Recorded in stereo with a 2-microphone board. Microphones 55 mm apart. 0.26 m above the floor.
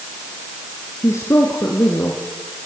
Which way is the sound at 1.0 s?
65° left (ahead or behind).